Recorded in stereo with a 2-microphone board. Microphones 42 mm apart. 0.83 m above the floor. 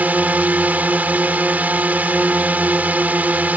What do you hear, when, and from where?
0.0 s a drone: 45° right (ahead or behind)